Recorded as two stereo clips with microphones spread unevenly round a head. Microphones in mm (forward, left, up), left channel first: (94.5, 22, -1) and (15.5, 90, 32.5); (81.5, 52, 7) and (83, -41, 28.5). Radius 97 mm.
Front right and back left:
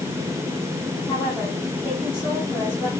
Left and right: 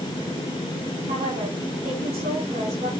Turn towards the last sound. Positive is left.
turn(degrees=-125)